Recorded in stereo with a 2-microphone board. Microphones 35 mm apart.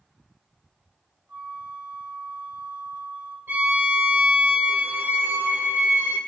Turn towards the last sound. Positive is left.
turn(degrees=-65)  # may be behind; listen again after turning